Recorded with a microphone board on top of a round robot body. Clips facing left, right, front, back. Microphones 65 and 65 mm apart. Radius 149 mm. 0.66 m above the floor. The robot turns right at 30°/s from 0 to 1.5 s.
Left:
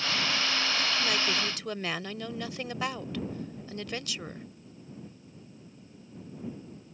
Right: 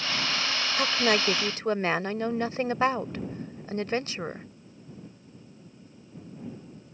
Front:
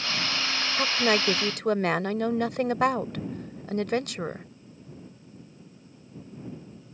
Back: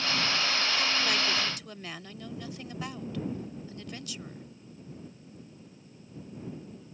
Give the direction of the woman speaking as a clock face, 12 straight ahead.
2 o'clock.